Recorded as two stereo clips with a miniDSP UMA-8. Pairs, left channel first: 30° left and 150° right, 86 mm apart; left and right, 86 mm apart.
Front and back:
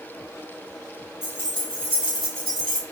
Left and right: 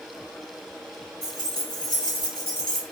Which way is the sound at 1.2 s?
85° left.